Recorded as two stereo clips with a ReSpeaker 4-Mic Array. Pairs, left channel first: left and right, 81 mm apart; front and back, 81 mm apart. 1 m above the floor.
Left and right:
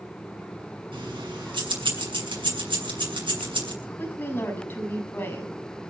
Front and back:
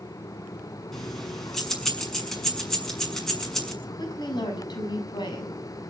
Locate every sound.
0.9 s keys jangling: 85° right, 6.5 m
3.8 s a woman speaking: 25° left, 7 m